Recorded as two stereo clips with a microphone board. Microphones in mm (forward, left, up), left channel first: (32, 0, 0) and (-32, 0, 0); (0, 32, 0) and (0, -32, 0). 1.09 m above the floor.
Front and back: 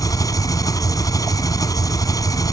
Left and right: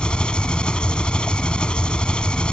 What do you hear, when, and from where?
0.0 s an engine running: 15° left